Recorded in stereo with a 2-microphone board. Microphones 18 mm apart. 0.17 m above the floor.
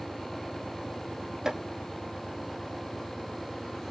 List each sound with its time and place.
1.4 s chopping: 25° right (ahead or behind), 2 m